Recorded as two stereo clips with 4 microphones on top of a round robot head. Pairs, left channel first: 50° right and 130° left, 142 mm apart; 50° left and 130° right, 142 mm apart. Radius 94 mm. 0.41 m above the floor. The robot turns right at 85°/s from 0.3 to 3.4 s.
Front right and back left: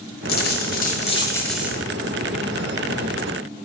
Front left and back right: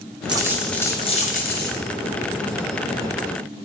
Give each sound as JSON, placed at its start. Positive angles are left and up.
{"t": 0.3, "sound": "a dropped coin", "azimuth_deg": -70, "distance_m": 1.3}